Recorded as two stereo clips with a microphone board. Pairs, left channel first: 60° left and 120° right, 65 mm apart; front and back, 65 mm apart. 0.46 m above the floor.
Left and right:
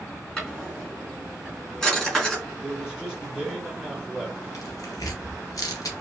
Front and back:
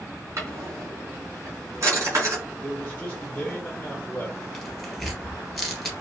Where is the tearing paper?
90° left, 1.6 m.